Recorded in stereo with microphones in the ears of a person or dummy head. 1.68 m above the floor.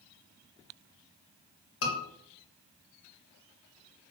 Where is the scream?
80° left, 2 m.